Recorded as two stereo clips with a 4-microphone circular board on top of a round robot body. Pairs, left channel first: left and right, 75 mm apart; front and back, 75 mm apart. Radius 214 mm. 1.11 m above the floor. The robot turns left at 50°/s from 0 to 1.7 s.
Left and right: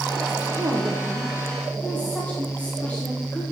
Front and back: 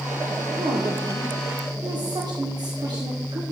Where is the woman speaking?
145° right, 1.9 m; by 3.5 s 160° left, 1.9 m.